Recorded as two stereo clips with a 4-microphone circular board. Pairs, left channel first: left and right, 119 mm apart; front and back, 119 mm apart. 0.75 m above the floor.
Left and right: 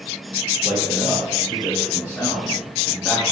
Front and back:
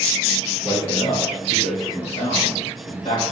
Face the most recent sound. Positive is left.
turn(degrees=-15)